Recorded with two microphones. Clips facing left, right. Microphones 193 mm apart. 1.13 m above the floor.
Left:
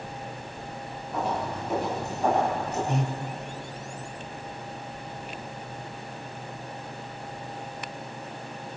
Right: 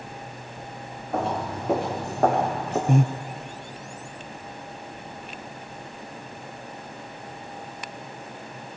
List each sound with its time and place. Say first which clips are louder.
1.1 s footsteps: right 2 dB; 65° right (ahead or behind), 4.5 m; by 2.8 s 75° right (ahead or behind), 5.5 m
2.9 s breathing: right 11 dB; 50° right (ahead or behind), 0.7 m